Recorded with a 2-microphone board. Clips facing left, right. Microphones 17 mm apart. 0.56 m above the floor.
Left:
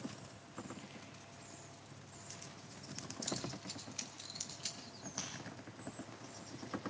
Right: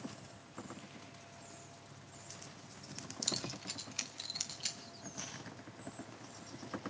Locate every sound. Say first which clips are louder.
3.2 s keys jangling: right 4 dB; 50° right (ahead or behind), 1.1 m; by 4.8 s 30° right (ahead or behind), 2.5 m
5.2 s breaking glass: left 2 dB; 80° left, 10 m